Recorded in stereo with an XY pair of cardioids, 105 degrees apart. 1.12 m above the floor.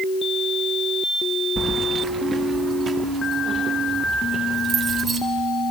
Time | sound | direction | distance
1.6 | keys jangling | 30° right | 0.9 m